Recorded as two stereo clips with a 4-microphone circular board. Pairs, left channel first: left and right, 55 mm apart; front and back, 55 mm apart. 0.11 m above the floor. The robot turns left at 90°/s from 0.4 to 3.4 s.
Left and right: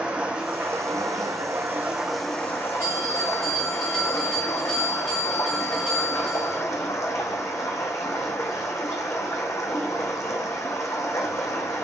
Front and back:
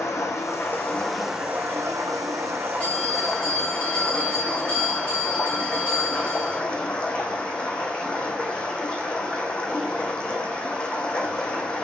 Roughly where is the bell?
Ahead left.